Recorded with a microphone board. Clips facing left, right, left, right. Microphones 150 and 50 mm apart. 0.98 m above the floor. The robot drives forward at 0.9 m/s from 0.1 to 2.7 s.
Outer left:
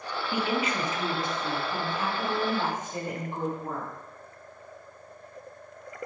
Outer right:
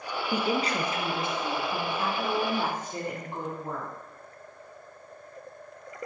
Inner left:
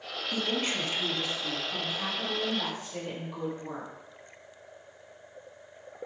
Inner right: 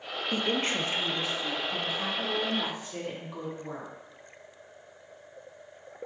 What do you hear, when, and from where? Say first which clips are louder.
0.3 s a woman speaking: outer right 1 dB, inner right 2 dB; 40° right (ahead or behind), 0.9 m; by 3.9 s 15° right (ahead or behind), 2.5 m